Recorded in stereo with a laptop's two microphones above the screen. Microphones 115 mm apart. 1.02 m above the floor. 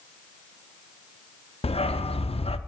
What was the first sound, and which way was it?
A dog barking, 60° left (ahead or behind).